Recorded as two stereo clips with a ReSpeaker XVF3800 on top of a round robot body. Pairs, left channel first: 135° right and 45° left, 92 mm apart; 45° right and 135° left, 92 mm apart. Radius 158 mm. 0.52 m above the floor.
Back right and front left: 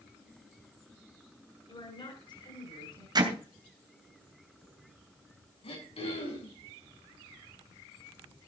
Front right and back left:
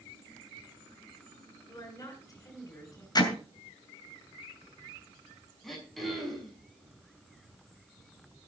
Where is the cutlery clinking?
No cutlery clinking in this recording.